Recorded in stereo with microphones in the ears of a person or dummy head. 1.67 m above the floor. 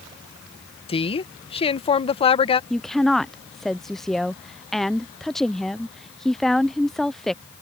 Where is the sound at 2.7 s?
Centre (ahead or behind).